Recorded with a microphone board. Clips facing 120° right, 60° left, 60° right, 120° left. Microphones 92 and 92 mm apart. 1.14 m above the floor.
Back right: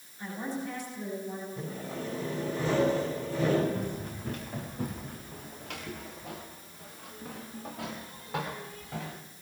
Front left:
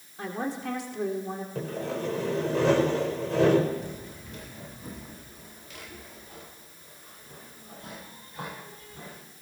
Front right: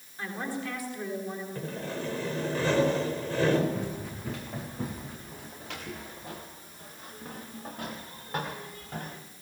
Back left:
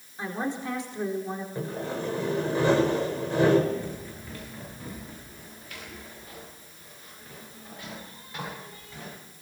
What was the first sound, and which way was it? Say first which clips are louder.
A woman speaking: front left 3 dB, back left 3 dB; 50° left.